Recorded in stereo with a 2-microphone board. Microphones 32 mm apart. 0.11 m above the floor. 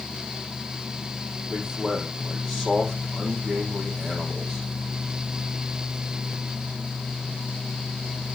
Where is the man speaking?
5° left (ahead or behind), 5 m.